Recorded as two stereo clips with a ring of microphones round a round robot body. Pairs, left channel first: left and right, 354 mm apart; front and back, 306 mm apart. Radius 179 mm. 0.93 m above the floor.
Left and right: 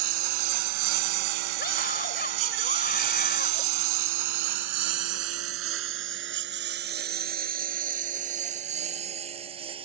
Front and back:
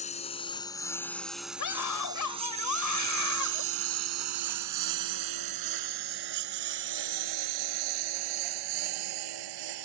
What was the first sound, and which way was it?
A lawn mower, 70° right.